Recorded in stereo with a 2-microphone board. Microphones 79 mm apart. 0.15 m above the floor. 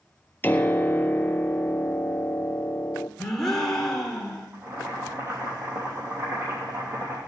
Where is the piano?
25° left (ahead or behind), 0.7 m.